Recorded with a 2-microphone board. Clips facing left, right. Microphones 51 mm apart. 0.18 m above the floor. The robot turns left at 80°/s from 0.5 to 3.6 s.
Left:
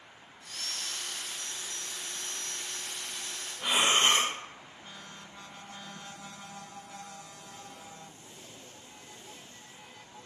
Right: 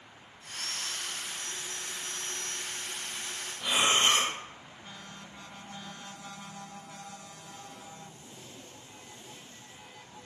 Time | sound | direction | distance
3.6 | breathing | 25° left (ahead or behind) | 0.7 m